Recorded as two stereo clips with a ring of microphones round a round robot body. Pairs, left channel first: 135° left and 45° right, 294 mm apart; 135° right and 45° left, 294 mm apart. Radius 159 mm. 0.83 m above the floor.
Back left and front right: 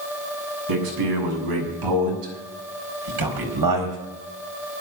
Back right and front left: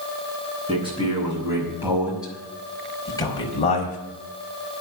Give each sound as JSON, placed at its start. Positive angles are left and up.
{"t": 0.7, "sound": "a man speaking", "azimuth_deg": -30, "distance_m": 7.5}